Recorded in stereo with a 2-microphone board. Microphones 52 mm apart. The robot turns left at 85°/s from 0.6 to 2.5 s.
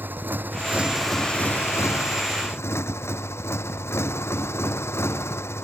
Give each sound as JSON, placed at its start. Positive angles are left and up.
{"t": 0.0, "sound": "a motorcycle", "azimuth_deg": -140}